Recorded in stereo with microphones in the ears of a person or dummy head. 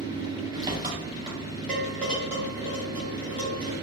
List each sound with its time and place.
0.0 s an engine running: 20° right (ahead or behind), 1.3 m
1.7 s dishes clattering: 10° left (ahead or behind), 2.5 m